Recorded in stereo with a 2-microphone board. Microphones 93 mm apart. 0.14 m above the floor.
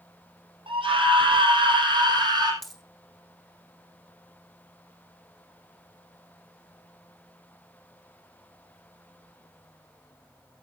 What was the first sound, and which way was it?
A scream, 70° right (ahead or behind).